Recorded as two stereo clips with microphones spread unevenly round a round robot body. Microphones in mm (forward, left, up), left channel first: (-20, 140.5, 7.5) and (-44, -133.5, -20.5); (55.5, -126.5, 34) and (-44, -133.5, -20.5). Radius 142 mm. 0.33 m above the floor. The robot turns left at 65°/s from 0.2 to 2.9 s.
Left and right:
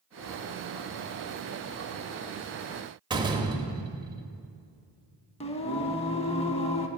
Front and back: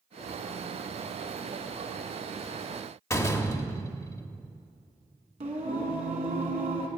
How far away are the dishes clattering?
No dishes clattering in this recording.